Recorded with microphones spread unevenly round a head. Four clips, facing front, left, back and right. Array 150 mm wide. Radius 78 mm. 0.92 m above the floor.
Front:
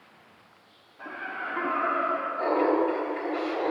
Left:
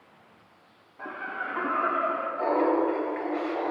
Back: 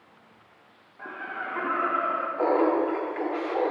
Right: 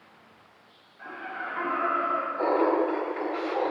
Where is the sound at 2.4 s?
155° right, 2.5 m.